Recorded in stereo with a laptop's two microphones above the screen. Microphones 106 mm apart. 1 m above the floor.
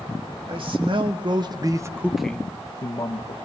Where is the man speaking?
55° right (ahead or behind), 1.9 m; by 3.4 s 45° left (ahead or behind), 1.4 m.